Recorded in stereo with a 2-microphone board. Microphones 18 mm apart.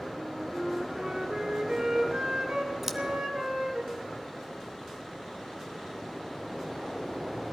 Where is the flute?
45° right (ahead or behind), 1.9 m.